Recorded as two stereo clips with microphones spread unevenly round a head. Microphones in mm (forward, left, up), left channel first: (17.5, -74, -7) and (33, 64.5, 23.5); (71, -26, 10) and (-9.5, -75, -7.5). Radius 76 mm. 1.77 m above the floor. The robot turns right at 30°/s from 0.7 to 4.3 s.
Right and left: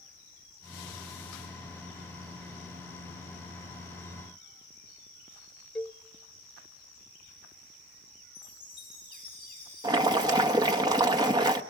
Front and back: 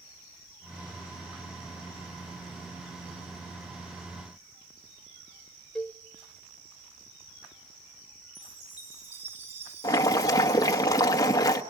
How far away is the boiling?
About 1.3 m.